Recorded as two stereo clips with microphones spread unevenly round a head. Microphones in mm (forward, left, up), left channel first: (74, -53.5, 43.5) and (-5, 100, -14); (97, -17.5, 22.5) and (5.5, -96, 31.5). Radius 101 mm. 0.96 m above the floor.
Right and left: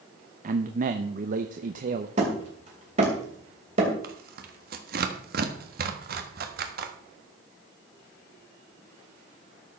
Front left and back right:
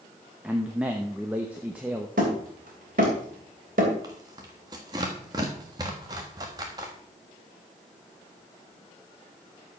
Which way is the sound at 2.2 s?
175° left.